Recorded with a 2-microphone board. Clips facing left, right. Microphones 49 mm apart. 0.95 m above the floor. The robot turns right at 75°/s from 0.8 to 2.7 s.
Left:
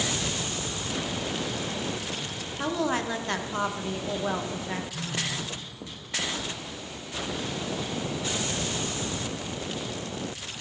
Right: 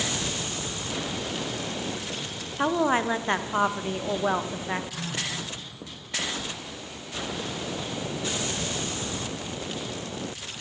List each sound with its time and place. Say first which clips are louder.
2.6 s a woman speaking: right 5 dB; 30° right (ahead or behind), 0.5 m; by 4.8 s 25° right (ahead or behind), 0.5 m
4.9 s a phone buzzing: even; 75° right (ahead or behind), 2.0 m